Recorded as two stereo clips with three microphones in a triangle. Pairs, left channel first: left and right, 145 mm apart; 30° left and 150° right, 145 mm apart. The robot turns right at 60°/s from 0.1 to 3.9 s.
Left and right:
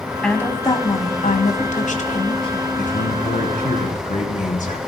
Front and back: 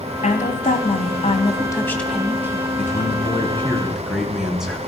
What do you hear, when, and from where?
0.2 s a woman speaking: 5° left, 1.9 m; by 2.6 s 150° left, 1.9 m
2.8 s a man speaking: 55° left, 3 m; by 4.8 s 125° left, 3 m